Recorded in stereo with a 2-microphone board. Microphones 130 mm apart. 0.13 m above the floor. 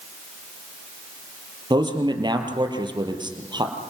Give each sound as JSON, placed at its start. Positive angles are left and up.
{"t": 1.7, "sound": "a man speaking", "side_deg": -35, "distance_m": 3.5}